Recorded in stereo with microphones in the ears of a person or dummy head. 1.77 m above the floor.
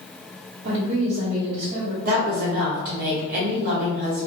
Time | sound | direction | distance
0.6 | a woman speaking | 60° right (ahead or behind) | 1.1 m
2.0 | a woman speaking | 55° right (ahead or behind) | 1.6 m